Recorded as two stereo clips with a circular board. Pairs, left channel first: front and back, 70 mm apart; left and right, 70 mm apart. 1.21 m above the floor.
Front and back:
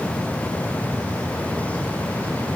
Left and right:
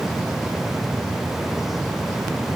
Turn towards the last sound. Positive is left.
No sound to turn to.